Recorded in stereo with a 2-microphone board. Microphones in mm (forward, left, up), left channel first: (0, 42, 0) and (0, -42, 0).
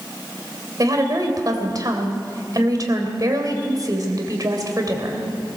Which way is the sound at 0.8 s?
45° right (ahead or behind).